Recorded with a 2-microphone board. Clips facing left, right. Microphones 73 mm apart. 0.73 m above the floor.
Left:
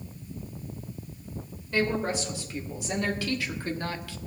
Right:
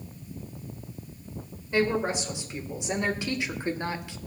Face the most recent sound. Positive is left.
turn(degrees=-20)  # may be behind; listen again after turning